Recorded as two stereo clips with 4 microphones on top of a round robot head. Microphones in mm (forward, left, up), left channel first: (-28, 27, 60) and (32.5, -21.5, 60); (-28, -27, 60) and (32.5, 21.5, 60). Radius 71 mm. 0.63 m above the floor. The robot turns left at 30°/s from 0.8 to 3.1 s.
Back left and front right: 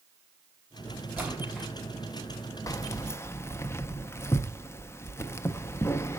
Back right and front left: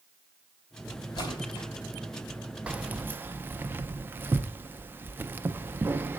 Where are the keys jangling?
105° left, 0.5 m; by 6.2 s 95° left, 0.5 m.